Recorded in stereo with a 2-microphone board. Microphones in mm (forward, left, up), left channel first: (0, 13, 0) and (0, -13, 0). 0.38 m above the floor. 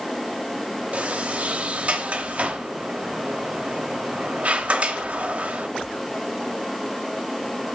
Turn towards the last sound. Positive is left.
turn(degrees=-50)  # may be behind; listen again after turning